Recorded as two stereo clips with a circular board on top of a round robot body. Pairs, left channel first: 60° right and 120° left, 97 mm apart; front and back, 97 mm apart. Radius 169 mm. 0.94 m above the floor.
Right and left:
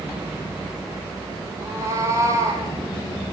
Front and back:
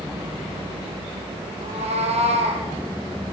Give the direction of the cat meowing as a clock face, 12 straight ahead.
6 o'clock.